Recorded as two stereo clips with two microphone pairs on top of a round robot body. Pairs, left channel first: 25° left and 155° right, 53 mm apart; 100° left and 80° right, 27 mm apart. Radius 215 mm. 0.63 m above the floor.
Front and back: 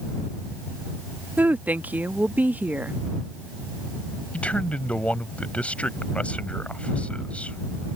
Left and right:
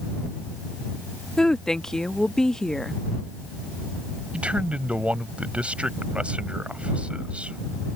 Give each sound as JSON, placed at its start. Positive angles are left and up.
{"t": 1.4, "sound": "a woman speaking", "azimuth_deg": 160}
{"t": 4.3, "sound": "a man speaking", "azimuth_deg": -40}